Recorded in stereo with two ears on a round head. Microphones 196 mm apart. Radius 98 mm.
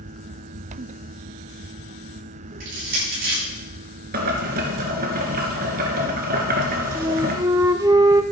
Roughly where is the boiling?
Right.